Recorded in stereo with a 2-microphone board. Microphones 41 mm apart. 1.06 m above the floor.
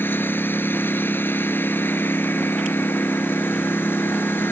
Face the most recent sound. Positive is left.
turn(degrees=65)  # may be behind; listen again after turning